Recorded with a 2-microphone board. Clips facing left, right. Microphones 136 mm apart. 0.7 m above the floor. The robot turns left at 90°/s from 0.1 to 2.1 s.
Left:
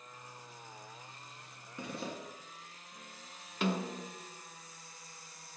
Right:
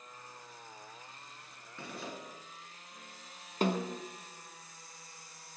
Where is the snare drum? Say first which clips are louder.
Right 2 dB; 45° right (ahead or behind), 0.5 m.